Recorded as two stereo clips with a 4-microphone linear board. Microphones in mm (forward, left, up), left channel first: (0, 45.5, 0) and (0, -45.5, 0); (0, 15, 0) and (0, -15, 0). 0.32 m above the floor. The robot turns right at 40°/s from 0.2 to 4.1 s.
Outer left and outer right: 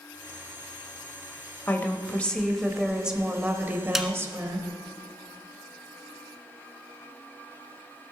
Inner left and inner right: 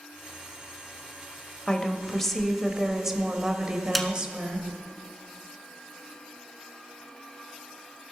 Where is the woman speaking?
140° left, 1.0 m; by 4.7 s 125° right, 1.0 m.